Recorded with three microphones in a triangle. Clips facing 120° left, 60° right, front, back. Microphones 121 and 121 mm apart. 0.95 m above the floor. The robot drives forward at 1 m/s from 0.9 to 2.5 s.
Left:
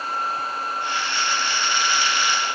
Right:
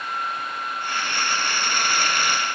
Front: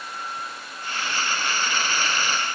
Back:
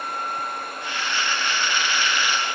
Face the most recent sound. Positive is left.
No sound to turn to.